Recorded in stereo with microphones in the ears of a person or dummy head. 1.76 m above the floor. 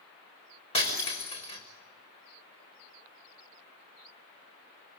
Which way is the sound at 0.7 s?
25° left (ahead or behind).